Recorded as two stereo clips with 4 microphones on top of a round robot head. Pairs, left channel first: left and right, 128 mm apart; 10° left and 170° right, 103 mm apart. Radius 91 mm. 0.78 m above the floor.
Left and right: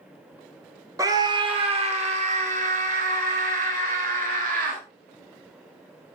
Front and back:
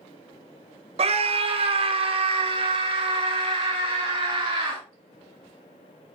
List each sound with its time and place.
1.0 s a scream: 155° right, 1.4 m; by 4.8 s 115° right, 5 m